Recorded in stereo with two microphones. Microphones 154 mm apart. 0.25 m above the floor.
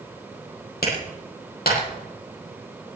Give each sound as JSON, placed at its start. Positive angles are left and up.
{"t": 0.8, "sound": "a clap", "side_deg": 80, "distance_m": 7.5}